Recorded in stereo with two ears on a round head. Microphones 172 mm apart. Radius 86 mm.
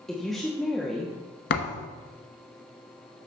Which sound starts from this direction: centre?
A woman speaking, at 0.1 s.